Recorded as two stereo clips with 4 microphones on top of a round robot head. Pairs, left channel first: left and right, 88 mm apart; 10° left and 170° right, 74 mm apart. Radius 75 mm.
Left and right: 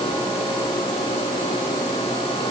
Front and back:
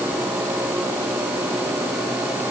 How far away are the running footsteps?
No running footsteps in this recording.